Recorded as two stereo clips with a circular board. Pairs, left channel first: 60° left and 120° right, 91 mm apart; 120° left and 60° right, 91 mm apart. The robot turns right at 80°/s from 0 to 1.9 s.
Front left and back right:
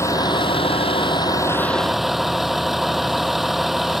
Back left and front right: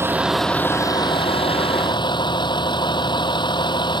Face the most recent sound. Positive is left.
turn(degrees=155)